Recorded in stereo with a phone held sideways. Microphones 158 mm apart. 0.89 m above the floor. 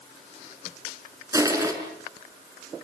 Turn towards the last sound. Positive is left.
turn(degrees=-20)  # may be behind; listen again after turning